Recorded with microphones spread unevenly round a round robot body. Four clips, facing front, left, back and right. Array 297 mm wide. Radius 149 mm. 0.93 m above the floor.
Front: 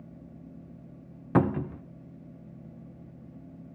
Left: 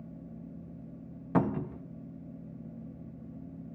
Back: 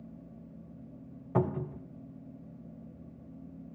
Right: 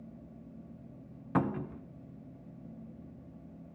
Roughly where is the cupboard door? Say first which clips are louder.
Left 3 dB, front 6 dB; ahead.